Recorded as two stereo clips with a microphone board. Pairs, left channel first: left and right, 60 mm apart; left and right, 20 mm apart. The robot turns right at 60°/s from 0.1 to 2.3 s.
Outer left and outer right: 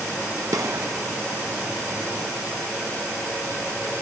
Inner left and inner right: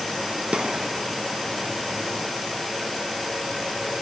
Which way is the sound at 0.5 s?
75° right (ahead or behind).